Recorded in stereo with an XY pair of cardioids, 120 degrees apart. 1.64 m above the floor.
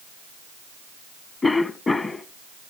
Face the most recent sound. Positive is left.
turn(degrees=25)